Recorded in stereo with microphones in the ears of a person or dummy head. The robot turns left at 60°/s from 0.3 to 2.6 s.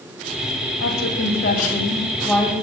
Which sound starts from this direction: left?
A woman speaking, at 0.8 s.